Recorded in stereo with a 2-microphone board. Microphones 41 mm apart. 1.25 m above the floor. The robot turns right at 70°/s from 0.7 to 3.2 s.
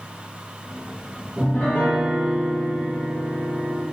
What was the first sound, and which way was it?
A piano, 5° left.